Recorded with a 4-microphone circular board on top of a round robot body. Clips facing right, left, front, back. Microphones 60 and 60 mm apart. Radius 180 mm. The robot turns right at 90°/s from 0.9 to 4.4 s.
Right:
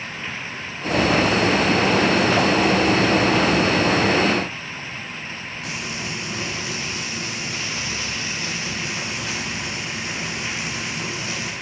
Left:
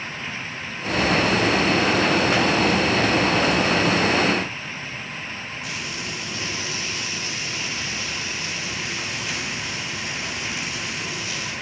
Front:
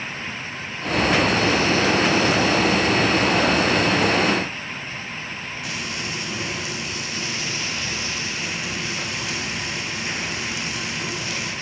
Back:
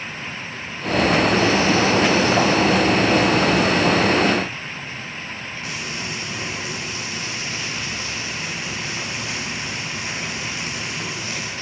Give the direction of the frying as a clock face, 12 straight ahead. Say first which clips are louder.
Right 3 dB, even; 4 o'clock.